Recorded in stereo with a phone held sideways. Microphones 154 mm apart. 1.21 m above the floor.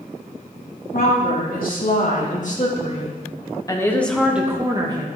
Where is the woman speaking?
70° left (ahead or behind), 3.5 m; by 5.1 s 35° right (ahead or behind), 1.6 m.